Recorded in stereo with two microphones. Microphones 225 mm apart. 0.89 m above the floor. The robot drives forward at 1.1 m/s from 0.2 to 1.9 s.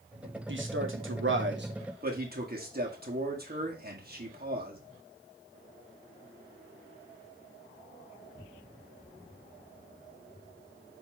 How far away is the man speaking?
About 1.4 m.